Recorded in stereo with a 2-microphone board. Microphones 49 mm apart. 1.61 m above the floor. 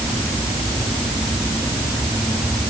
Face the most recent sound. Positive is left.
No sound to turn to.